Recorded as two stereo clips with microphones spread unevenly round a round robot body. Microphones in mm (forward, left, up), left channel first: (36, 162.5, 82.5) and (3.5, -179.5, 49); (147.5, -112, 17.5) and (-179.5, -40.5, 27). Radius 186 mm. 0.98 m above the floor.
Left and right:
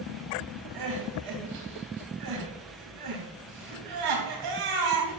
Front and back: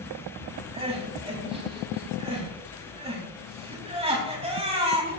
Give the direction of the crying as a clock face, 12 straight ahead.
4 o'clock.